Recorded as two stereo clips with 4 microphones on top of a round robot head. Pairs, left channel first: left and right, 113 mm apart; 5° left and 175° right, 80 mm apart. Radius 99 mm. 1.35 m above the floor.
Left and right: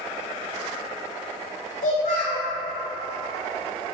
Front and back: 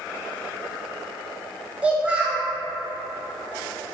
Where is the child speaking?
110° left, 0.7 m.